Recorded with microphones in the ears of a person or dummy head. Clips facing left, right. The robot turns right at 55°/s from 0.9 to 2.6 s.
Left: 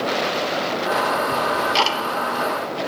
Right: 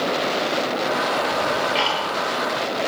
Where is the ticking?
30° left (ahead or behind), 1.2 m; by 2.0 s 65° left (ahead or behind), 1.2 m.